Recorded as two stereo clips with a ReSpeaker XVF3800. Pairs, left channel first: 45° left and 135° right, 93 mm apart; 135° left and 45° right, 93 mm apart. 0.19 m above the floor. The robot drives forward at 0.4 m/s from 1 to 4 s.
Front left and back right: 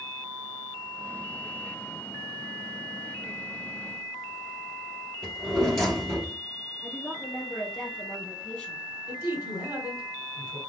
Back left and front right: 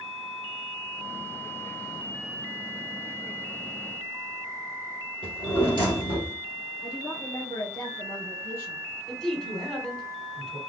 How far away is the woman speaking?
About 1.5 m.